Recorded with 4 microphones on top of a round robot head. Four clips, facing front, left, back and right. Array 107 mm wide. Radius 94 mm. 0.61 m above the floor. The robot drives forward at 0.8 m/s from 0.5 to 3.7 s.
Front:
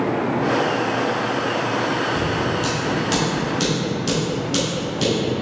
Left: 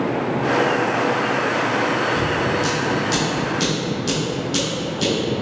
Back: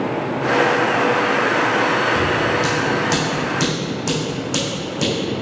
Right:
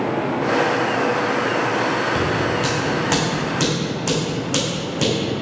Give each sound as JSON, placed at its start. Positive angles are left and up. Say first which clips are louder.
{"t": 2.1, "sound": "scissors", "louder": "even, back 3 dB", "azimuth_deg": -105, "distance_m": 2.5}